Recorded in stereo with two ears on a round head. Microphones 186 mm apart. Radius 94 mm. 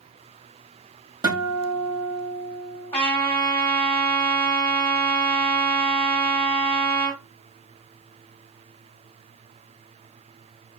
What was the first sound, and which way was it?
A guitar, 20° right (ahead or behind).